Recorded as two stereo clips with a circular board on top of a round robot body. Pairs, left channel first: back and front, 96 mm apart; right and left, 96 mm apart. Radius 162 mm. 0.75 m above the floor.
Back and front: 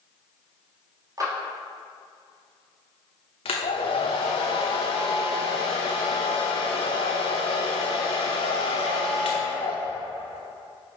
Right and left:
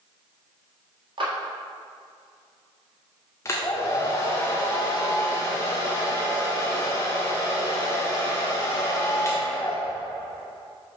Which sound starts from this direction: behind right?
A hair dryer, at 3.5 s.